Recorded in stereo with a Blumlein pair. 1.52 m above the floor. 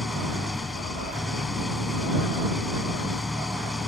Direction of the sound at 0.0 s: 10° left.